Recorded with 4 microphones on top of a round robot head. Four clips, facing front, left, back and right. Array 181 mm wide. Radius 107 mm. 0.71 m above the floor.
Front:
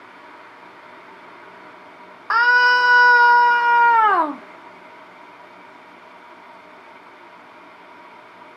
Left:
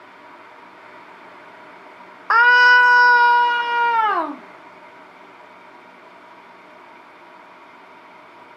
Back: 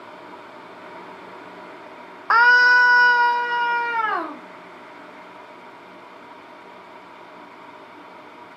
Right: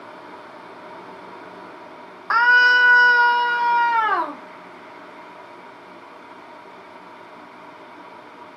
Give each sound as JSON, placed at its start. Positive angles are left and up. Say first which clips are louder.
{"t": 2.3, "sound": "a scream", "louder": "left 3 dB, back 1 dB", "azimuth_deg": 130, "distance_m": 0.7}